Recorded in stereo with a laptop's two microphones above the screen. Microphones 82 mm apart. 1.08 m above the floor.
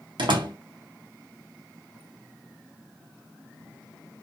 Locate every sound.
0.2 s a door slam: 75° right (ahead or behind), 1.2 m